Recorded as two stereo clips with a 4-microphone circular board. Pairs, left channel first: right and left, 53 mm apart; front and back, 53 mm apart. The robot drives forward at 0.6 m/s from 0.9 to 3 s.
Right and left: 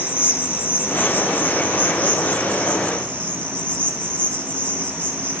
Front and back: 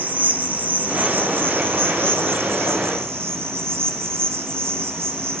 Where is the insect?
135° right, 1.4 m; by 5.4 s 155° right, 2.5 m.